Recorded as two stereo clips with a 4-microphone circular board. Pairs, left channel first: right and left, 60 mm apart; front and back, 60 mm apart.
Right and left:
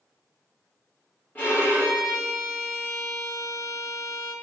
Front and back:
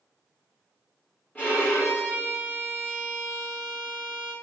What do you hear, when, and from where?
1.4 s a violin: 55° right, 1.9 m